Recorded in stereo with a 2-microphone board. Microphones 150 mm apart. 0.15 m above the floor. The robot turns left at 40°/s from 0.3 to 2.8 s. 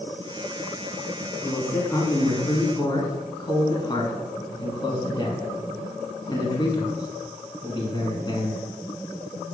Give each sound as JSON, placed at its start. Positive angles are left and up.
{"t": 1.4, "sound": "a man speaking", "side_deg": 10, "distance_m": 1.4}